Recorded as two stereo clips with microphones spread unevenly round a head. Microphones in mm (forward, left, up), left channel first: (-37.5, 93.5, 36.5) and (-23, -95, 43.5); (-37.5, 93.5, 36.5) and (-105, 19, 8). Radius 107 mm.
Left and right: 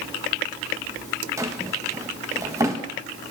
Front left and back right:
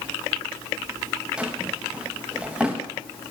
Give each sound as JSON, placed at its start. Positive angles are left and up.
{"t": 1.4, "sound": "a drawer", "azimuth_deg": -25, "distance_m": 1.0}